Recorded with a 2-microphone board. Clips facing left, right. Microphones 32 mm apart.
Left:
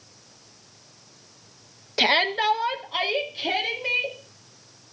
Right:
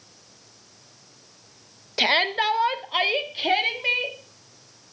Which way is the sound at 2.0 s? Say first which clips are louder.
Even; centre (ahead or behind).